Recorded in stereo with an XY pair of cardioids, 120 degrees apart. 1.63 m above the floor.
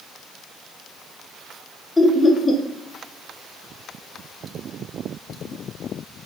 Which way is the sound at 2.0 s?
10° left.